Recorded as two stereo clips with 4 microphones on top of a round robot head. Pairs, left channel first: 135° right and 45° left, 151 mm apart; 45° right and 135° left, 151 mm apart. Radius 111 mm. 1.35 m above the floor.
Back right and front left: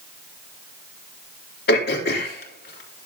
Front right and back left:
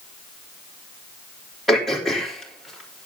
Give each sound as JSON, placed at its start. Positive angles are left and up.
{"t": 1.7, "sound": "throat clearing", "azimuth_deg": -130, "distance_m": 3.5}